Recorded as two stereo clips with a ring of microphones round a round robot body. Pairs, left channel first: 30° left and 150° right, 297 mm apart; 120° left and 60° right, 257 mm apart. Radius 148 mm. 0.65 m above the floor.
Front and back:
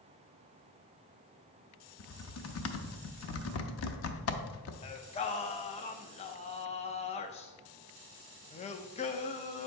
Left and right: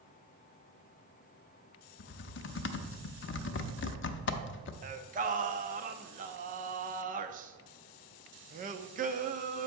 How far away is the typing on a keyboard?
About 0.6 m.